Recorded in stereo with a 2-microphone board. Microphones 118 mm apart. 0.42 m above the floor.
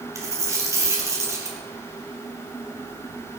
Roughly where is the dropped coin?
Right.